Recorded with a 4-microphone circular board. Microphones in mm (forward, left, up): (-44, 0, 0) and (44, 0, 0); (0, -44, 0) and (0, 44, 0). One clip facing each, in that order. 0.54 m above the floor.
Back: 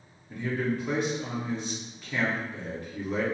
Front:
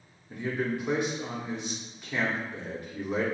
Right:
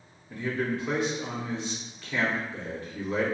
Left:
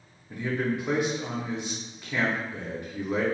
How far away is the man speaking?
About 0.7 m.